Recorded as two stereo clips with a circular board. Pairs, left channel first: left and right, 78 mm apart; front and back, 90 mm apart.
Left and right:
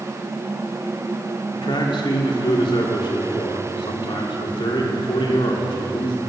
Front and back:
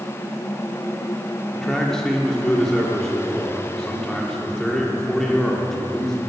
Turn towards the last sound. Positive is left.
turn(degrees=85)